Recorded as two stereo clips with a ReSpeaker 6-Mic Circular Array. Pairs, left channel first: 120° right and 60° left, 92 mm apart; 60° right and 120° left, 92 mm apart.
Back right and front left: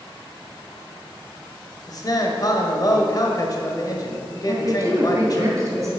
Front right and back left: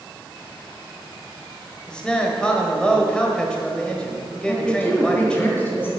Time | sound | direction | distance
1.9 | a man speaking | 135° right | 1.4 m
4.5 | a woman speaking | 5° left | 2.5 m